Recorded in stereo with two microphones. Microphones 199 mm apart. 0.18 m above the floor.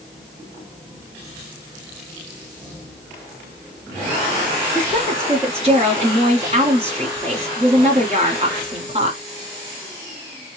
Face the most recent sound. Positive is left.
turn(degrees=-35)  # may be behind; listen again after turning